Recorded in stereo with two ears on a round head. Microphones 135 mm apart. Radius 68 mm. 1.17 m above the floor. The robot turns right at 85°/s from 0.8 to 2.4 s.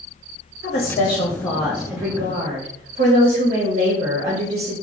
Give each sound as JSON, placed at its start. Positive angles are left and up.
{"t": 0.6, "sound": "a woman speaking", "azimuth_deg": 120, "distance_m": 0.7}